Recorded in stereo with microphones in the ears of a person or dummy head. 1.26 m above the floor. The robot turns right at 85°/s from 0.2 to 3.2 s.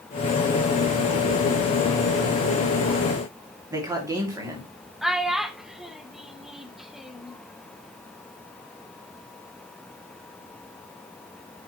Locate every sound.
3.7 s a man speaking: 20° right (ahead or behind), 2.5 m
5.0 s a child speaking: 5° right (ahead or behind), 0.8 m